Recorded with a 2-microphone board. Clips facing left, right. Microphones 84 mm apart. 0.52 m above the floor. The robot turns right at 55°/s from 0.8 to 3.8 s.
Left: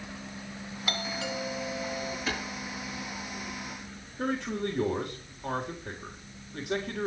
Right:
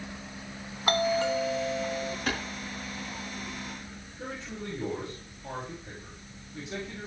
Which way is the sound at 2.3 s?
65° right (ahead or behind).